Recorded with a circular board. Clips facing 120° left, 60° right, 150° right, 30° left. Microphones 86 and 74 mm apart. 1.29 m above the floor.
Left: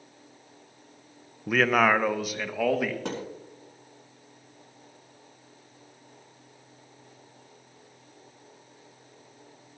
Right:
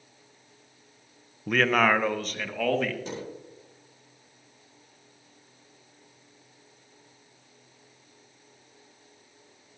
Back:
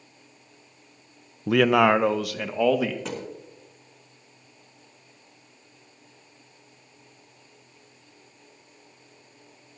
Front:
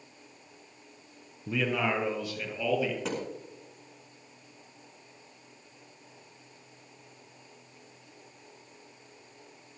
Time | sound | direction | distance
1.5 | a man speaking | 155° right | 0.5 m
3.0 | a thud | 120° left | 4 m